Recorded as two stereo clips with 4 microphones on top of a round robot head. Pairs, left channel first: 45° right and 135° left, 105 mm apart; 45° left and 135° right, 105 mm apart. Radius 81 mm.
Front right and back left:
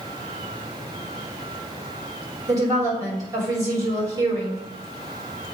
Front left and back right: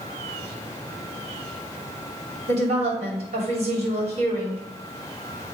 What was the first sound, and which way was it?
A woman speaking, 165° right.